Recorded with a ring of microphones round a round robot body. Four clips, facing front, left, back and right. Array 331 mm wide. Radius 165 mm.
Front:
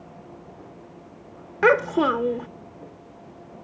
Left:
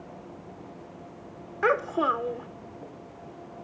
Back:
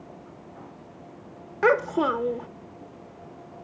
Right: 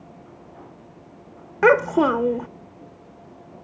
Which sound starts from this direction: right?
A child speaking, at 1.6 s.